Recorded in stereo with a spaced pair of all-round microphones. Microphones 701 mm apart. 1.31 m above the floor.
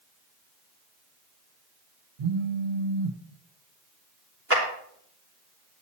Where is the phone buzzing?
60° right (ahead or behind), 0.9 m.